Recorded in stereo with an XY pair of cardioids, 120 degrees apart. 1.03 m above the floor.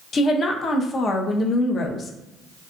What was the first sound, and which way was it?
A woman speaking, 40° left.